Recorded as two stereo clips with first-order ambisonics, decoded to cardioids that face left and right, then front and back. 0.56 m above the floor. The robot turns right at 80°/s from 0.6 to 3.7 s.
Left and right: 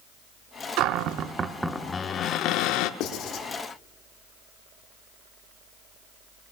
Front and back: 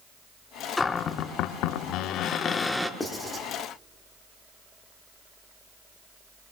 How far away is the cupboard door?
About 0.6 m.